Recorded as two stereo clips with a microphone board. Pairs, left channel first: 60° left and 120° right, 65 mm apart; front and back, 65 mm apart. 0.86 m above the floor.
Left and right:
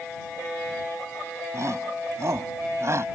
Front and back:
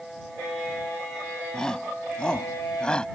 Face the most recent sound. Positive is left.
turn(degrees=-75)